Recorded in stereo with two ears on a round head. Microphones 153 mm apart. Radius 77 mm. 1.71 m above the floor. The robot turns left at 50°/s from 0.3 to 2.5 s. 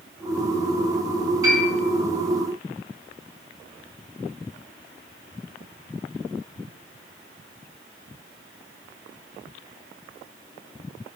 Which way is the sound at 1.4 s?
20° right (ahead or behind).